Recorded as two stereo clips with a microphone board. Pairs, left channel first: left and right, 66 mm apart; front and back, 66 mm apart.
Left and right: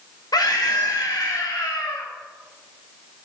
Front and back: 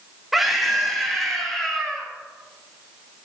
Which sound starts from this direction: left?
A scream, at 0.3 s.